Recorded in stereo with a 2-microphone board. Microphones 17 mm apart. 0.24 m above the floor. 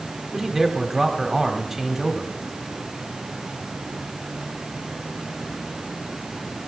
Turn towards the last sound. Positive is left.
turn(degrees=-15)  # may be behind; listen again after turning